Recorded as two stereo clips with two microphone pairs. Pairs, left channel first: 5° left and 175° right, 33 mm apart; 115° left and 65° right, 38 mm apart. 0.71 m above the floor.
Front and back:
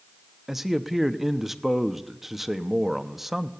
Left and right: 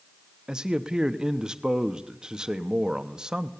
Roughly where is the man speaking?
Right.